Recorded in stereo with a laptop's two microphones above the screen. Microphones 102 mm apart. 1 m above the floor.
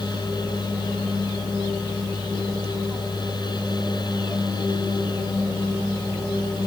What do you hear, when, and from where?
0.0 s a fan: 45° left (ahead or behind)